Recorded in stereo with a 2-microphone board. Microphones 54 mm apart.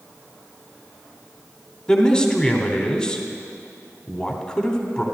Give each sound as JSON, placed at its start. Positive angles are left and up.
{"t": 1.9, "sound": "a man speaking", "side_deg": 15, "distance_m": 1.1}